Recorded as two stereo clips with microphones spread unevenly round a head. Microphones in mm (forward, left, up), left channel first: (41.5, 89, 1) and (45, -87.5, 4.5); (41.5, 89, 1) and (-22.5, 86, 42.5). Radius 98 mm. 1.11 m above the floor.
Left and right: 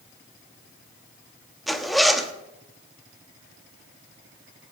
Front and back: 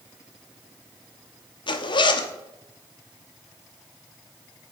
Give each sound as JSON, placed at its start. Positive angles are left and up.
{"t": 1.7, "sound": "a zipper", "azimuth_deg": 0, "distance_m": 1.1}